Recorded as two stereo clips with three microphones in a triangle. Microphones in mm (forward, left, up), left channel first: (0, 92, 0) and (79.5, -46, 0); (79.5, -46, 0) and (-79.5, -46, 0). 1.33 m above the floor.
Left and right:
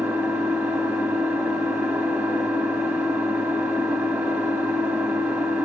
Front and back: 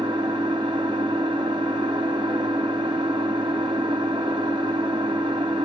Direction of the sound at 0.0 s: 130° right.